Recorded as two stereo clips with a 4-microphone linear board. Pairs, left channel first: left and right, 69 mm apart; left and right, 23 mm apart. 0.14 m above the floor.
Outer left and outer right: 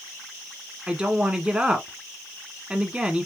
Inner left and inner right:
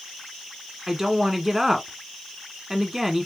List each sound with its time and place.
0.9 s a woman speaking: 15° right (ahead or behind), 1.2 m